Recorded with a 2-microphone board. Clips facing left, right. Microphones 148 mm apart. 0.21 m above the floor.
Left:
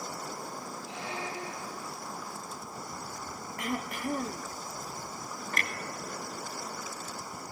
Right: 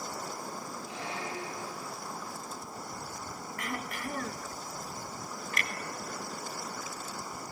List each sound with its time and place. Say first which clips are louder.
0.9 s a squeak: left 1 dB; 20° left (ahead or behind), 4.5 m
3.6 s throat clearing: left 4 dB; 25° left (ahead or behind), 0.6 m
5.5 s a clunk: left 2 dB; 45° left (ahead or behind), 0.7 m